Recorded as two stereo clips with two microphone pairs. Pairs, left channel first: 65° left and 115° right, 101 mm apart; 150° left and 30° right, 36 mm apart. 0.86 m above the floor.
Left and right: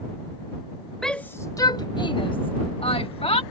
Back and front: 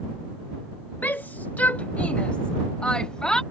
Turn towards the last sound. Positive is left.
turn(degrees=80)